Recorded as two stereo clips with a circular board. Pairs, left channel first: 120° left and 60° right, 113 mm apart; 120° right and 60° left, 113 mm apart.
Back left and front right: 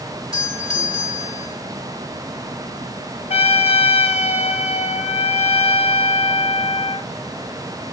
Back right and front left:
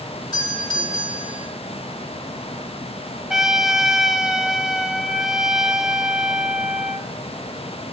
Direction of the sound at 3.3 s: 145° left.